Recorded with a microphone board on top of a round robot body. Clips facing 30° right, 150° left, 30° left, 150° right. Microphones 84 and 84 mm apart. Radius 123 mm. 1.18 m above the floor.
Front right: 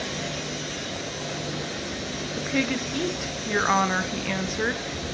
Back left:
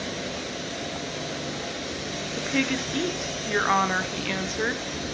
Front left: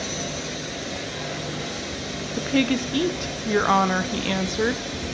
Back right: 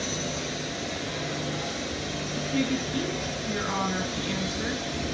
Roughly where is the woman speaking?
Ahead left.